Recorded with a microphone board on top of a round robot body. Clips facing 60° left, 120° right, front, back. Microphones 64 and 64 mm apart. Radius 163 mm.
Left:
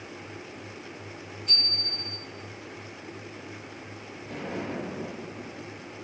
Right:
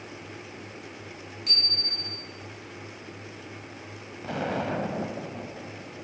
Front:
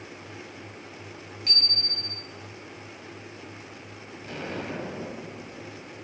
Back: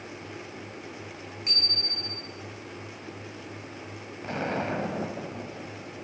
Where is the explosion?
125° right, 2 m.